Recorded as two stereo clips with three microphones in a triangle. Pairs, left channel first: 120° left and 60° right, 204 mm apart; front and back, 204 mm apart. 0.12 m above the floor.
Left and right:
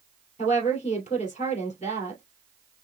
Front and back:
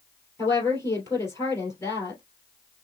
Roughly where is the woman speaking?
Left.